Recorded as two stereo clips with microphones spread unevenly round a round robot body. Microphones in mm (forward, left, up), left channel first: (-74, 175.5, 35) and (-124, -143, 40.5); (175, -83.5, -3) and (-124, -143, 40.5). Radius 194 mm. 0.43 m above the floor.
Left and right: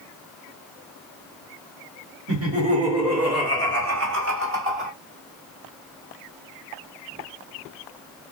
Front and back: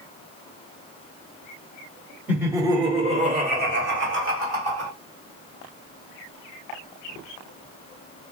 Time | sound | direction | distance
2.3 | laughter | 75° right | 1.7 m